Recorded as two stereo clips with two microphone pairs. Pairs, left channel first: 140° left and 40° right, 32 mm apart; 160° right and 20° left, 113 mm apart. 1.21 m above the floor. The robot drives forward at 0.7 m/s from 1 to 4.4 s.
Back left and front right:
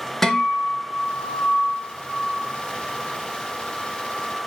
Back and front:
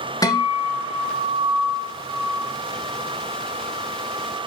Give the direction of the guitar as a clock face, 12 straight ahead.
5 o'clock.